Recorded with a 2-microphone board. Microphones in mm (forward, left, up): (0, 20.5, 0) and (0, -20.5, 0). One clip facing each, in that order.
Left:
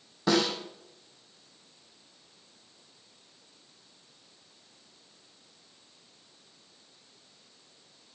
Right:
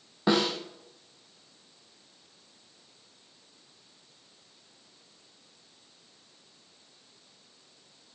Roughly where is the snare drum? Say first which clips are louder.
Right 1 dB; right.